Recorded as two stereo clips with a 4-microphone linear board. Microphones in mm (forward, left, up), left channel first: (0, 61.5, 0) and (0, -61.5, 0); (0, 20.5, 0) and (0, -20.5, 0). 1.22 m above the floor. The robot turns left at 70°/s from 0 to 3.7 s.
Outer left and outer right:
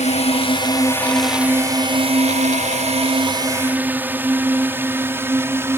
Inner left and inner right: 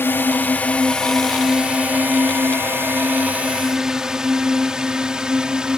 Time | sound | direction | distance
0.0 | a drone | 65° left (ahead or behind) | ?